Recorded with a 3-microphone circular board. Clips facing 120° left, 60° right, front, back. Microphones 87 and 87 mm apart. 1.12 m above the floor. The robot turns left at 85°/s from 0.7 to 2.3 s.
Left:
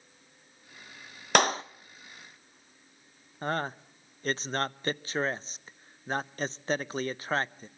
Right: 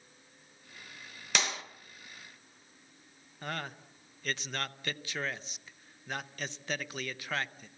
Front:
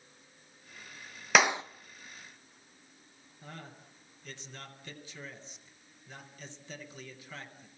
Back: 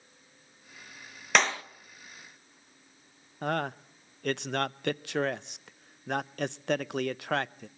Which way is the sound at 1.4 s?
85° left.